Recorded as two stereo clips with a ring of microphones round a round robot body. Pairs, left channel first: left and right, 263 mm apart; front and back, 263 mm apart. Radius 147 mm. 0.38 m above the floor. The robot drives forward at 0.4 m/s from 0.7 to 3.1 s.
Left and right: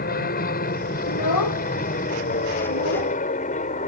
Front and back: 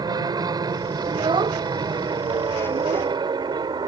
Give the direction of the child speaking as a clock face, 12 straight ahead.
8 o'clock.